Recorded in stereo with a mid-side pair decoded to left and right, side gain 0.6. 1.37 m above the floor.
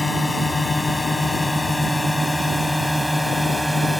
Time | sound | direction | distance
0.0 | a drone | 15° left | ?